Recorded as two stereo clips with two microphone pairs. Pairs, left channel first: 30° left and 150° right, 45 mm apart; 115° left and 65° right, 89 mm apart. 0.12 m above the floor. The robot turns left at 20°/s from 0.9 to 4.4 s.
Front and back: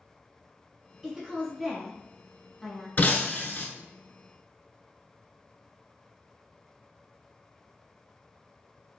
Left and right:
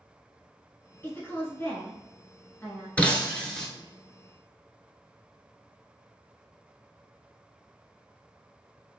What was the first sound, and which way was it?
A woman speaking, 135° left.